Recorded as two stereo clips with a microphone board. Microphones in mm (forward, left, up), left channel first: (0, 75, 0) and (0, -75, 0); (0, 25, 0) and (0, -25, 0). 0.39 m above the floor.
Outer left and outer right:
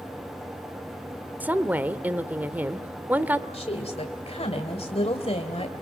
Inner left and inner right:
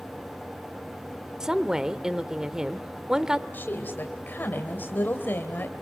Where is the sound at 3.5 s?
40° left (ahead or behind), 1.9 m.